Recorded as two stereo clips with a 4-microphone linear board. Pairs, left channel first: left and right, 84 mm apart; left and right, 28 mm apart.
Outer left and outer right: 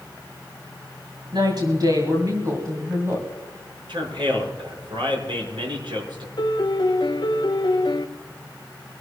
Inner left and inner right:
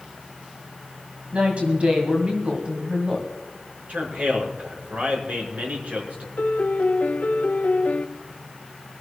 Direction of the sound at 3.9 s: 80° right.